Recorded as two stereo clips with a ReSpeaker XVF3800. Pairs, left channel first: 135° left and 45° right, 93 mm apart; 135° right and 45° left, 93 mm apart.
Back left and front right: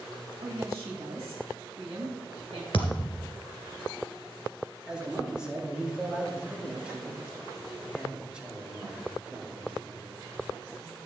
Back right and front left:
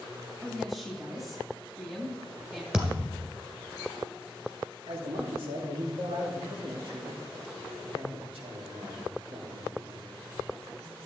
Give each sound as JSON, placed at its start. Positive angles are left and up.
{"t": 0.4, "sound": "a woman speaking", "azimuth_deg": -40, "distance_m": 2.0}
{"t": 2.7, "sound": "a thud", "azimuth_deg": 125, "distance_m": 2.5}
{"t": 4.9, "sound": "a man speaking", "azimuth_deg": 35, "distance_m": 2.5}